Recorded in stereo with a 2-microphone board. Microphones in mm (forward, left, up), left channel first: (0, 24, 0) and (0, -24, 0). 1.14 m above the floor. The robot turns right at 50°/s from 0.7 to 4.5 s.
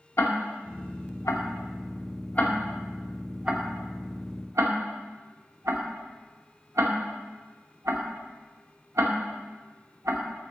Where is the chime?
No chime in this recording.